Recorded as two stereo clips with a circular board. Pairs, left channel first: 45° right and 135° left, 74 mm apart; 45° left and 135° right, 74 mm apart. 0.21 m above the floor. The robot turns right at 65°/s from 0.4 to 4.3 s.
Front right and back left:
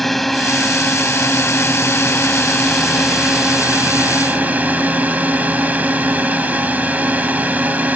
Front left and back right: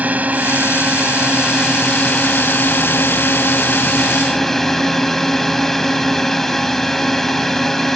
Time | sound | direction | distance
0.0 | a drone | 130° right | ?